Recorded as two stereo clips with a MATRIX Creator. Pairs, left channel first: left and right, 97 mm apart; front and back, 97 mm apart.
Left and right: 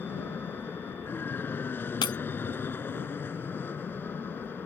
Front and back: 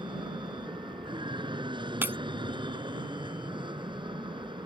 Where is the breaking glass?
115° left.